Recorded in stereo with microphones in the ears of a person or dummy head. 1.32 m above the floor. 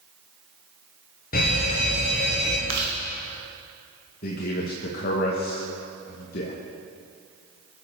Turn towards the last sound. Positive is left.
turn(degrees=50)  # may be behind; listen again after turning